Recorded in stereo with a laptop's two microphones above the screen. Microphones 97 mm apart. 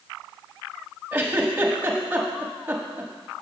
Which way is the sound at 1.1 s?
20° right (ahead or behind).